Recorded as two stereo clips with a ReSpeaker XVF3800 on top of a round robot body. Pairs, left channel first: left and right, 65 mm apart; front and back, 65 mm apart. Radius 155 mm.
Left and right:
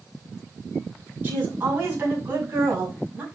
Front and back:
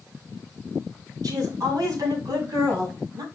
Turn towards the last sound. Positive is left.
turn(degrees=-160)